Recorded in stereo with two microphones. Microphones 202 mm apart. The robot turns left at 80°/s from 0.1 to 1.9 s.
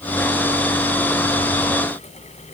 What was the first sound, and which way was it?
Only background noise.